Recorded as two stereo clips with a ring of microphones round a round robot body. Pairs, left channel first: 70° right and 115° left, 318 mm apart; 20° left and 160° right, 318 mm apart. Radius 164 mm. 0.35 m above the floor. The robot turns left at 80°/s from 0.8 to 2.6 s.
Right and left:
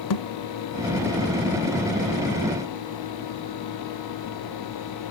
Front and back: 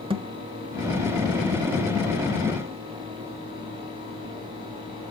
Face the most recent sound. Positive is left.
turn(degrees=130)